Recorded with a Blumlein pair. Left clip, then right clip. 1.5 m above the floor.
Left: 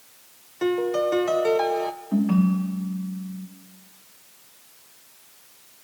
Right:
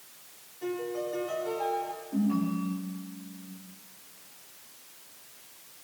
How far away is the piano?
About 0.7 m.